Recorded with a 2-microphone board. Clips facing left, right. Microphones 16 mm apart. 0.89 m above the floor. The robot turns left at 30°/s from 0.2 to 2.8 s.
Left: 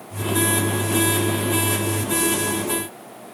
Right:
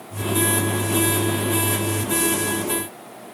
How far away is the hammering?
I don't hear hammering.